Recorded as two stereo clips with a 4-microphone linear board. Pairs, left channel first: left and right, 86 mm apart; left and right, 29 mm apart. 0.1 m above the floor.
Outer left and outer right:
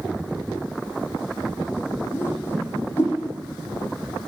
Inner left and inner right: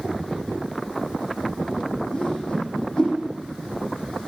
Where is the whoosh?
30° left (ahead or behind), 4.5 m.